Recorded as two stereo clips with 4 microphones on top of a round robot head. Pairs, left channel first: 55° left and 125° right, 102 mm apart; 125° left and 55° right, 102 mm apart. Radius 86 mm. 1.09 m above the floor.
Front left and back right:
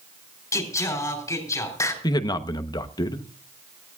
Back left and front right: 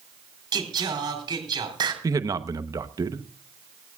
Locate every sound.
0.5 s singing: 5° right, 3.5 m
2.0 s a man speaking: straight ahead, 1.0 m